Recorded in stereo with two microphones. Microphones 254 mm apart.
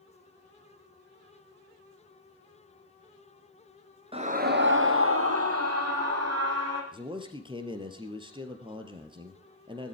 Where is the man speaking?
20° right (ahead or behind), 2 m.